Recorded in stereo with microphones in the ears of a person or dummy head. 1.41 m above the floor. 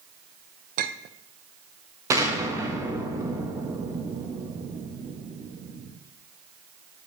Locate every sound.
0.8 s a clink: 50° right (ahead or behind), 0.6 m
2.1 s an explosion: 15° right (ahead or behind), 1.2 m